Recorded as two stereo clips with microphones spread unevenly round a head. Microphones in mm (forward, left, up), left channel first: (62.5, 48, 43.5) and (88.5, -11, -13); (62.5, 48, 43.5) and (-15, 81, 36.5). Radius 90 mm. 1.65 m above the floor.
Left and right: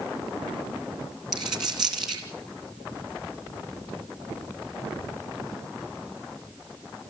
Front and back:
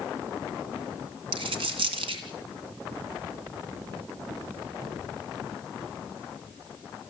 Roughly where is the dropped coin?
Behind.